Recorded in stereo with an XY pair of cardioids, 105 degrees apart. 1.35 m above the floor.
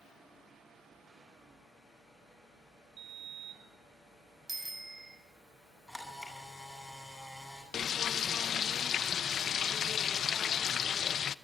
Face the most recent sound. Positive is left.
turn(degrees=50)